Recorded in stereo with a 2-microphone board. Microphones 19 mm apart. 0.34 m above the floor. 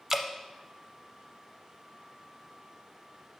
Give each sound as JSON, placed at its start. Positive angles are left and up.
{"t": 0.1, "sound": "dripping", "side_deg": -20, "distance_m": 0.5}